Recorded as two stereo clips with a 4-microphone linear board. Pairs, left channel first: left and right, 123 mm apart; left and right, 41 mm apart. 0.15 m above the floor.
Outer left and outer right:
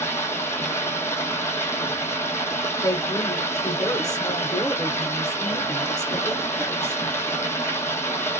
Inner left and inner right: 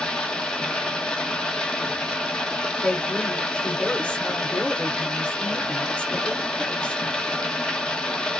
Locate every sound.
0.0 s running water: 20° left (ahead or behind), 1.4 m
2.8 s a woman speaking: 30° left (ahead or behind), 1.2 m